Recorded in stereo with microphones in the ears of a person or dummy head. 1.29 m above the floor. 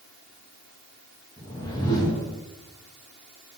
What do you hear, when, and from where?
1.4 s a whoosh: 20° left (ahead or behind), 1.9 m